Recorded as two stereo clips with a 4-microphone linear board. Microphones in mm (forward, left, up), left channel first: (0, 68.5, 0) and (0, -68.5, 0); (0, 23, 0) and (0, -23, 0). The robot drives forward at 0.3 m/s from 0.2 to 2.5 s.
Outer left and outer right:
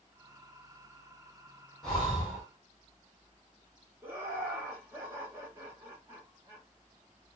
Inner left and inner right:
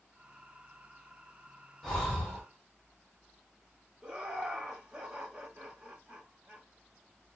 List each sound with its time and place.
1.8 s breathing: 5° left (ahead or behind), 1.6 m
4.0 s laughter: 15° right (ahead or behind), 1.0 m